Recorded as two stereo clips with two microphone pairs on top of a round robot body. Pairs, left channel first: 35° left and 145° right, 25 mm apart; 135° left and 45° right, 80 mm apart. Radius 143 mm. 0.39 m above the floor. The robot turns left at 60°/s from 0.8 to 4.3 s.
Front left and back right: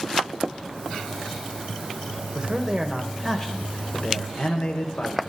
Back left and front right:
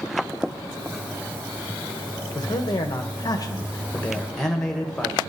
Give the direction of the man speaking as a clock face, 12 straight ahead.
6 o'clock.